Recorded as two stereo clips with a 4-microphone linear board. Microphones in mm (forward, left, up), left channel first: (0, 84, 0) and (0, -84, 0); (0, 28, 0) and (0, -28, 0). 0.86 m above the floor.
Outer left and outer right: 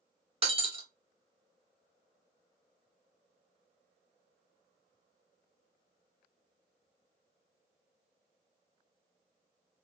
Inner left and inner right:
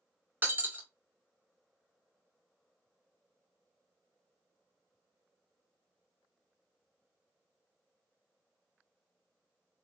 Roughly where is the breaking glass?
Right.